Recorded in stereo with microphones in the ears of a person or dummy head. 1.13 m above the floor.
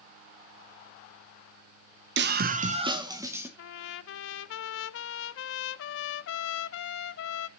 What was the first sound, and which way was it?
A scream, 50° right (ahead or behind).